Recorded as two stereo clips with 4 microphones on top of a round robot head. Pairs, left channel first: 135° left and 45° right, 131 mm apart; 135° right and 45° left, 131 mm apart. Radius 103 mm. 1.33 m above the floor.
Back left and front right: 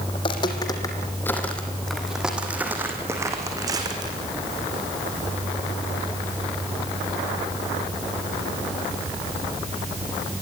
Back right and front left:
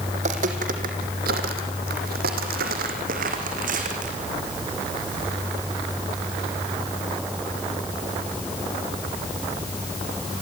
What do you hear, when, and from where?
0.1 s footsteps: 85° left, 3 m; by 4.2 s 15° left, 4.5 m